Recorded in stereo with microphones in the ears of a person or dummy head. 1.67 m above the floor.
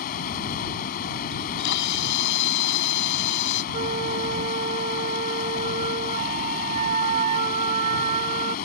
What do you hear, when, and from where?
0.0 s running water: 60° left (ahead or behind)
1.3 s a camera shutter: 80° left
3.7 s a flute: 40° right (ahead or behind)